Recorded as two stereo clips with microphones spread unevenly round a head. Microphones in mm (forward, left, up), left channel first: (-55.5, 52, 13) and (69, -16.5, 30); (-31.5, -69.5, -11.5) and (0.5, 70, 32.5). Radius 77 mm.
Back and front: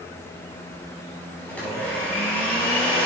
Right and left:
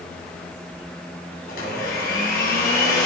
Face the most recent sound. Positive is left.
turn(degrees=-125)